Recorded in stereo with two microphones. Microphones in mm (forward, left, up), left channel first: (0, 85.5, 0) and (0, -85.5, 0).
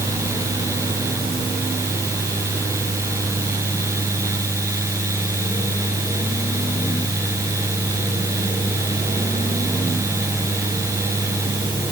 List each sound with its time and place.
Only background noise.